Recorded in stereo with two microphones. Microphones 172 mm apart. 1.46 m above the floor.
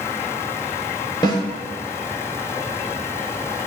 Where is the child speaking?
I don't hear a child speaking.